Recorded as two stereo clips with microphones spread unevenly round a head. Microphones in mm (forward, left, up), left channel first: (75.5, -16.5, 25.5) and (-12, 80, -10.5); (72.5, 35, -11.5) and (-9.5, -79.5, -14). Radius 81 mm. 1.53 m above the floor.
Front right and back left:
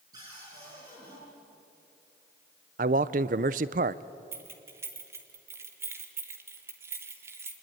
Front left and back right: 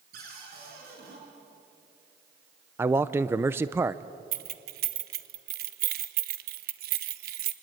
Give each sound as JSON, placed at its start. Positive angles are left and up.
{"t": 0.1, "sound": "a cupboard door", "azimuth_deg": -155, "distance_m": 7.0}
{"t": 2.8, "sound": "a man speaking", "azimuth_deg": 160, "distance_m": 0.5}
{"t": 4.3, "sound": "keys jangling", "azimuth_deg": -145, "distance_m": 1.0}